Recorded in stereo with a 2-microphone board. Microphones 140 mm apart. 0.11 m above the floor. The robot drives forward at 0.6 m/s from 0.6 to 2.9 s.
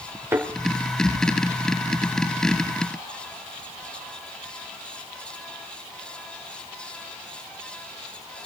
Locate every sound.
0.3 s a thud: 20° right (ahead or behind), 4 m